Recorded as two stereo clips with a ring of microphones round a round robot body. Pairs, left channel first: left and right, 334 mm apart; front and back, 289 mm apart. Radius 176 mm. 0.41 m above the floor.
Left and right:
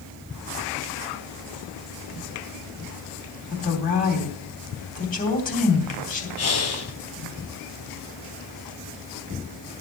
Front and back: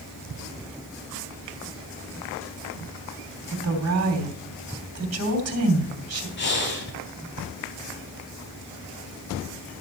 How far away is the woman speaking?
About 3 m.